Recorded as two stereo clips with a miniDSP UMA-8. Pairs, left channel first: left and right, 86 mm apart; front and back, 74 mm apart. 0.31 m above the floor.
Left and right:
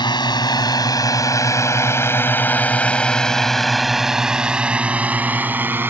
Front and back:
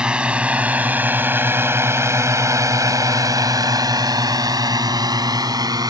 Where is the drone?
105° left; by 5.9 s 155° right.